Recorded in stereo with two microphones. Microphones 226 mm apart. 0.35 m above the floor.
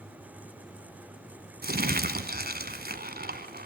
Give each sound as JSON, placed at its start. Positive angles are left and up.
{"t": 1.6, "sound": "crumpling", "side_deg": -45, "distance_m": 1.4}